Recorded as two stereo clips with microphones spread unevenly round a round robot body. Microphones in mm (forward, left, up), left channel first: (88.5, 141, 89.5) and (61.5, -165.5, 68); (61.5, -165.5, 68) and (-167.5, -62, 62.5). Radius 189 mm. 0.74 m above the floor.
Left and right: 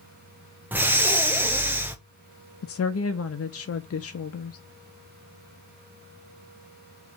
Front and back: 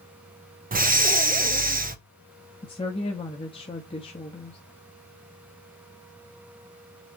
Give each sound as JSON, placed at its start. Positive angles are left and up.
{"t": 0.7, "sound": "breathing", "azimuth_deg": -170, "distance_m": 1.2}
{"t": 2.6, "sound": "a woman speaking", "azimuth_deg": 45, "distance_m": 0.9}